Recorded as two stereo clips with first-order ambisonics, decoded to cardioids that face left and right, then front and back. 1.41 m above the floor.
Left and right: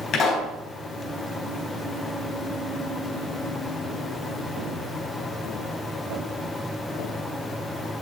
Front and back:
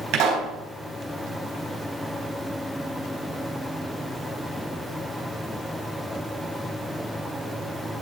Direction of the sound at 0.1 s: 140° left.